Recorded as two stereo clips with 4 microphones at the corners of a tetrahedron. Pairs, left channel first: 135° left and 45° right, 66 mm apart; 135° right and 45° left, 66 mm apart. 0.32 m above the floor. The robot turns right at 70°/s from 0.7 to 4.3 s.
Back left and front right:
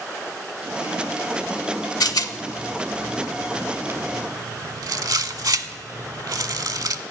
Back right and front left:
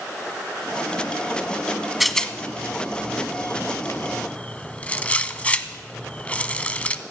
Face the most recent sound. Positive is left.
turn(degrees=-65)